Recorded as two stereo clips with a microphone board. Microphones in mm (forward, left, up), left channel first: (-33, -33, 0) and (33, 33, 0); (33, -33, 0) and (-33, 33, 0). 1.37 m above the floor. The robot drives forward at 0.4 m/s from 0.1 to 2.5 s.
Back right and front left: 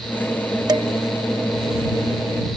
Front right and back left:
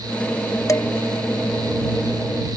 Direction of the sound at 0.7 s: 5° left.